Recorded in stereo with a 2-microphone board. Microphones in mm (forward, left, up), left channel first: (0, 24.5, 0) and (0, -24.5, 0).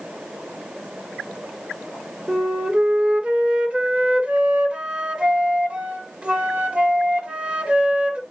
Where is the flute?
25° right (ahead or behind), 1.7 m.